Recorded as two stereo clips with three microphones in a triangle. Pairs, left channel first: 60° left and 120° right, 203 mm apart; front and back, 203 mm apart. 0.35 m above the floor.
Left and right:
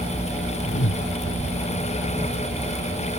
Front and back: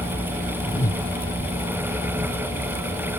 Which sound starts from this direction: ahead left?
A whoosh, at 0.7 s.